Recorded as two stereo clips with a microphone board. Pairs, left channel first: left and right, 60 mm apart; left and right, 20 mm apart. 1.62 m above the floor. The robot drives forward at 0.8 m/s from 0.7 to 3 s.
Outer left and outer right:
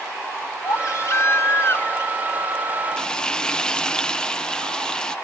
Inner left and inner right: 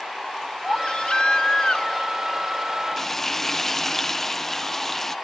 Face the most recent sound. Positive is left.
turn(degrees=15)  # may be behind; listen again after turning